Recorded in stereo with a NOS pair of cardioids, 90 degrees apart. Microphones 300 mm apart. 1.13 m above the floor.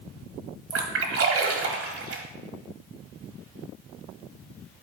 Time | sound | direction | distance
0.7 | a splash | 50° right | 1.4 m